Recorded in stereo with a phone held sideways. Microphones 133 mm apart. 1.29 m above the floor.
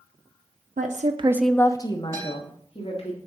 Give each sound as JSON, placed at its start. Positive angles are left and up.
{"t": 0.8, "sound": "a woman speaking", "side_deg": -70, "distance_m": 0.9}
{"t": 2.1, "sound": "a guitar", "side_deg": 20, "distance_m": 4.0}